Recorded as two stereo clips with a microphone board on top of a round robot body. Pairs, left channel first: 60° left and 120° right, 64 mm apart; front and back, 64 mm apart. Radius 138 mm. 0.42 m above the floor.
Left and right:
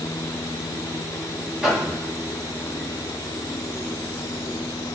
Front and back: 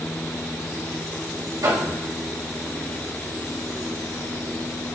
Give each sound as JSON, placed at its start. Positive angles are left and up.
{"t": 1.6, "sound": "knocking", "azimuth_deg": 160, "distance_m": 3.5}